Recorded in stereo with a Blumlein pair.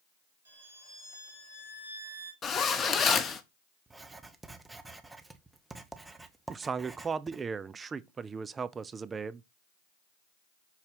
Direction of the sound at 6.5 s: 15° right.